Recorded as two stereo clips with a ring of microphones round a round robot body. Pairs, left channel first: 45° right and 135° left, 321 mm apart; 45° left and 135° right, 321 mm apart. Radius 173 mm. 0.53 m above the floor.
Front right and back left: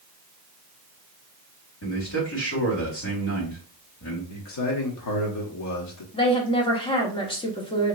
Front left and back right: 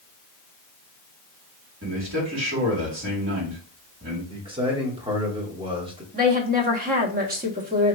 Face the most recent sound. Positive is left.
turn(degrees=-105)